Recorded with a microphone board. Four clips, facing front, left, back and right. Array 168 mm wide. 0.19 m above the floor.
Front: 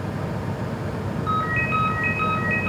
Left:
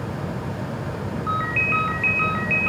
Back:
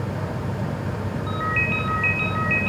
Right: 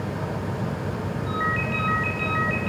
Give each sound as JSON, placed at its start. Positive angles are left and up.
{"t": 1.3, "sound": "a ringtone", "azimuth_deg": 60, "distance_m": 4.0}